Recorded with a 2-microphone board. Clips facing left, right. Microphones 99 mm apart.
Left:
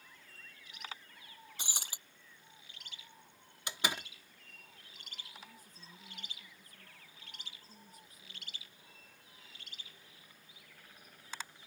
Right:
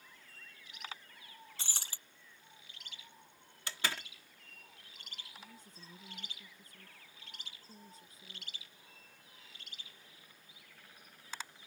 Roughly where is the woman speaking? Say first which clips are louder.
Right 1 dB; right.